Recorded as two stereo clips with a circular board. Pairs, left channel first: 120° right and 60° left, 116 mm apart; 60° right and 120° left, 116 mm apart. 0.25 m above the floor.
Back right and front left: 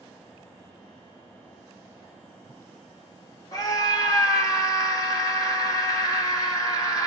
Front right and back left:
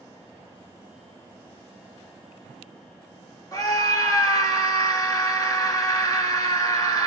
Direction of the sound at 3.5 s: 95° right.